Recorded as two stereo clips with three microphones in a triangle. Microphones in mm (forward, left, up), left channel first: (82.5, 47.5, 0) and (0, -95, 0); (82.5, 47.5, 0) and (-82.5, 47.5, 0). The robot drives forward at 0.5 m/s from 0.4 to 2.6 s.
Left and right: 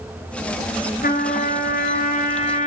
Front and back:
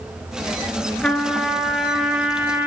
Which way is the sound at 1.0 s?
85° left.